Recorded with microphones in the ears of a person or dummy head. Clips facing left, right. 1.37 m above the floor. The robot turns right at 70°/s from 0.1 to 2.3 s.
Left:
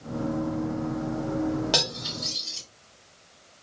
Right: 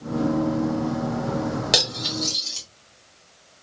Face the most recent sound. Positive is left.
turn(degrees=-55)  # may be behind; listen again after turning